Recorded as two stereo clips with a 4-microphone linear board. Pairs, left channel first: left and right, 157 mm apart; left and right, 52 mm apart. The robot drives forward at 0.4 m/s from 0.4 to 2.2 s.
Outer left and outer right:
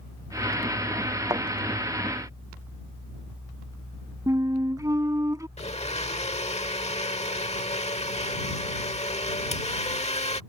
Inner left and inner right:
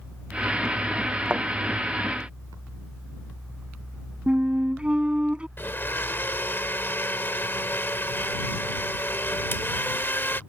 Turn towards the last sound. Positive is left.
turn(degrees=45)  # may be behind; listen again after turning